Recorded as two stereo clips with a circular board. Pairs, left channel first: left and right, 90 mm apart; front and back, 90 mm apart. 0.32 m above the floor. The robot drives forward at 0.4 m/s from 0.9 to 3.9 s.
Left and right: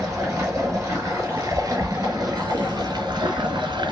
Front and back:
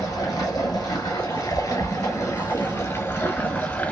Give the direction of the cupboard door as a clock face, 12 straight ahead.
No cupboard door in this recording.